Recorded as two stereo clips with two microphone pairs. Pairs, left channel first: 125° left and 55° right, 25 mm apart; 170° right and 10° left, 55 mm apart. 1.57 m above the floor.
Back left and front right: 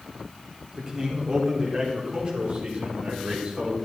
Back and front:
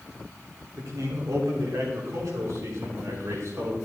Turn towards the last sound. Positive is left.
turn(degrees=-15)